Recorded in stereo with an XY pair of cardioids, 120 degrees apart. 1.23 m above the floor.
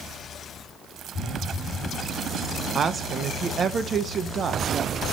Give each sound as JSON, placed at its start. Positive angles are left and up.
{"t": 1.1, "sound": "a phone buzzing", "azimuth_deg": 65, "distance_m": 1.1}
{"t": 2.8, "sound": "a woman speaking", "azimuth_deg": -40, "distance_m": 0.9}